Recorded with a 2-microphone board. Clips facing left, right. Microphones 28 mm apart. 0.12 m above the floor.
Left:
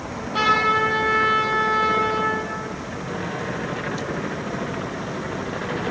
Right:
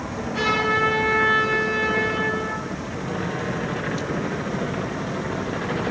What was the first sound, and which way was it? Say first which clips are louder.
A trumpet: left 3 dB; 40° left (ahead or behind).